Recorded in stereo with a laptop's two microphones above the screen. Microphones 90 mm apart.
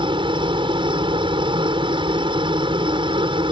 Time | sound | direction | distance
0.0 | a helicopter | 65° right (ahead or behind) | ?